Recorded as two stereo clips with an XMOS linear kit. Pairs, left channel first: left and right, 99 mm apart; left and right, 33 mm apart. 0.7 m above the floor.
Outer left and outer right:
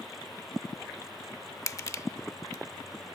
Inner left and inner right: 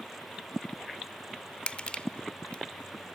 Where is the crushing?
35° left (ahead or behind), 0.5 m.